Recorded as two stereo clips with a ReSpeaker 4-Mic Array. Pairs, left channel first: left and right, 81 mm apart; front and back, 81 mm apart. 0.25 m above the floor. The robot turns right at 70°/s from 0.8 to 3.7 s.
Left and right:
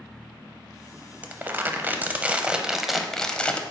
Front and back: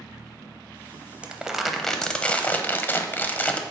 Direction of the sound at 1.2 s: 125° right.